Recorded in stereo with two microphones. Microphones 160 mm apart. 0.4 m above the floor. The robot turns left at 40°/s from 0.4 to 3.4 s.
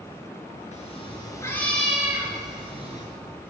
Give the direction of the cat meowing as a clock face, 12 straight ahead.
10 o'clock.